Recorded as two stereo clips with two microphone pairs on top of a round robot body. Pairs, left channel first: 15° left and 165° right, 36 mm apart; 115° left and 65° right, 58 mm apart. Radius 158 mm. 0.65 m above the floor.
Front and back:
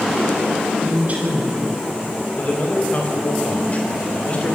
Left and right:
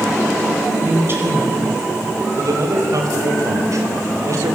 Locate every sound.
0.8 s a woman speaking: 110° right, 4.5 m
2.4 s a man speaking: 35° right, 4 m